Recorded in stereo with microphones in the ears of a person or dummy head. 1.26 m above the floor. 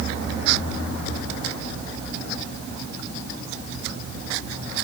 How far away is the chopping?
No chopping in this recording.